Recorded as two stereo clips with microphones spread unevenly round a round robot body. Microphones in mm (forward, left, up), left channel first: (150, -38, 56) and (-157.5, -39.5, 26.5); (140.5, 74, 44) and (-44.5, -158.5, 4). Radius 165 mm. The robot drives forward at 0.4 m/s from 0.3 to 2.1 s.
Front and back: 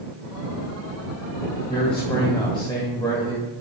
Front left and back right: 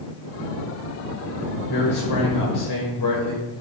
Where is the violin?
I don't hear a violin.